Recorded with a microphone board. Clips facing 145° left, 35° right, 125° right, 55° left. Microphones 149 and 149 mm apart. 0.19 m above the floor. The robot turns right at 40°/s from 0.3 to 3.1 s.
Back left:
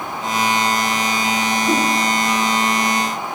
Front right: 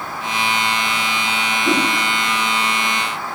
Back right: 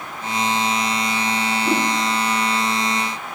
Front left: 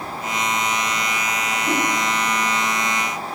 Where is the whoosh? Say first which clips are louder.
Front right 1 dB, back right 1 dB; 50° right, 2.5 m; by 1.9 s 40° right, 2.5 m.